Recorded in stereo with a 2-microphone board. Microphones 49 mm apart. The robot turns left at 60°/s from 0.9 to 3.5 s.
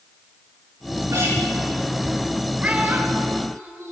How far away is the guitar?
About 7.5 m.